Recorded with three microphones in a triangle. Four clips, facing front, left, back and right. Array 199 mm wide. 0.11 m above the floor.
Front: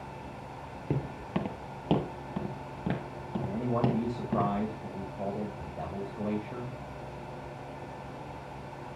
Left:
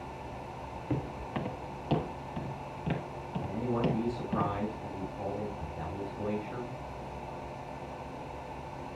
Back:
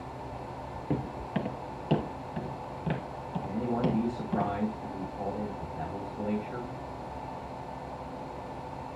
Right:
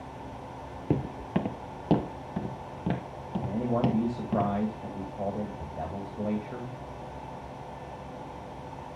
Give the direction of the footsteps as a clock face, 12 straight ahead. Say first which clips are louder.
Right 6 dB, back 1 dB; 3 o'clock.